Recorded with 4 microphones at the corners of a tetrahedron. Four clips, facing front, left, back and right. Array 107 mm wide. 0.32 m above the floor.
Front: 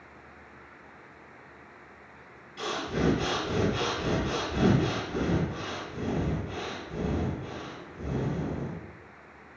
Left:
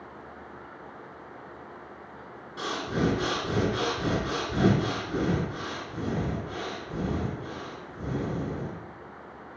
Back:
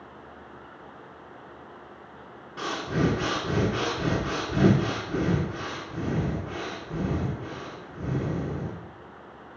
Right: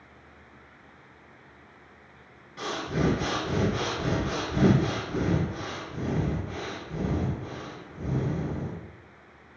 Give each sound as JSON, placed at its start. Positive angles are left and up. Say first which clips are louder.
{"t": 2.6, "sound": "breathing", "louder": "even, back 3 dB", "azimuth_deg": 150, "distance_m": 1.5}